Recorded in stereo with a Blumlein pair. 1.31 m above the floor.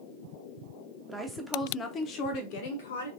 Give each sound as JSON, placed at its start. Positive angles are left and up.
{"t": 1.1, "sound": "a woman speaking", "azimuth_deg": -5, "distance_m": 0.9}